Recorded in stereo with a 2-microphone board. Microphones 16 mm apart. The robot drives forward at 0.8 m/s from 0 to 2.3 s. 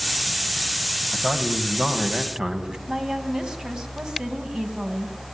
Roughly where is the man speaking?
Right.